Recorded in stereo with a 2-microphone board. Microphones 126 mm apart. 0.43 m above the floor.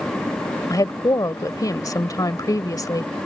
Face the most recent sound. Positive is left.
turn(degrees=30)  # may be behind; listen again after turning